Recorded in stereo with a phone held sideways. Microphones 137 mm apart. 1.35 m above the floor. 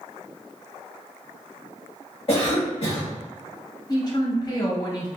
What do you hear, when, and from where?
2.3 s a cough: 45° left (ahead or behind), 1.8 m
3.9 s a woman speaking: 30° left (ahead or behind), 1.2 m